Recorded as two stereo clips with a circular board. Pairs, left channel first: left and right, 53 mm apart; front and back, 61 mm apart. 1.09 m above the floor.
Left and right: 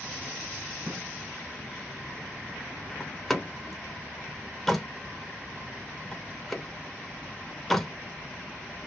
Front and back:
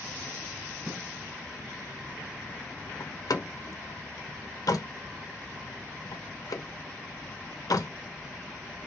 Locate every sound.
0.9 s a gunshot: 125° right, 2 m
3.0 s a door slam: 5° left, 0.7 m